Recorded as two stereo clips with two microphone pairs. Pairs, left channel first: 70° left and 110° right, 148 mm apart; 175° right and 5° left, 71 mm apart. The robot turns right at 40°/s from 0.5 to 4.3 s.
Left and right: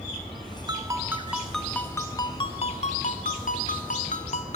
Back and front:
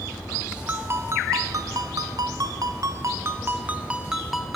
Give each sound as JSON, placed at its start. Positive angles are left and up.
{"t": 0.7, "sound": "a ringtone", "azimuth_deg": -50, "distance_m": 0.7}